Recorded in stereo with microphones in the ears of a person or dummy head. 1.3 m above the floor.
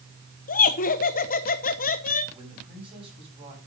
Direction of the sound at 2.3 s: 25° right (ahead or behind).